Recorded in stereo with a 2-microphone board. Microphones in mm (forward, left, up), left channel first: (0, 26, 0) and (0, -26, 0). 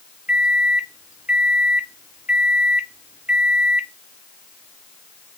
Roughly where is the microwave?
Right.